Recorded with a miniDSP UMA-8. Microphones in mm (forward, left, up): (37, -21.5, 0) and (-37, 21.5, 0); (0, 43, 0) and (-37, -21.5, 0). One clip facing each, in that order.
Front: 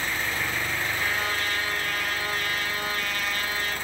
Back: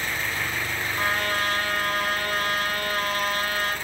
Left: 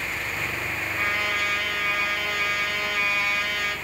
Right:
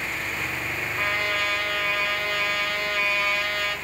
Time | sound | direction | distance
1.0 | a trumpet | 135° left | 1.0 m